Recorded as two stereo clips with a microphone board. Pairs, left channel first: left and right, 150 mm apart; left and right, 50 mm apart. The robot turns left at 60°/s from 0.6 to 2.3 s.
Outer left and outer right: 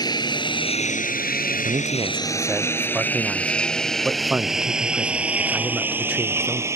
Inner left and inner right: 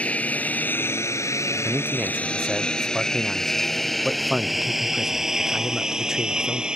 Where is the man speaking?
135° right; by 6.7 s 170° right.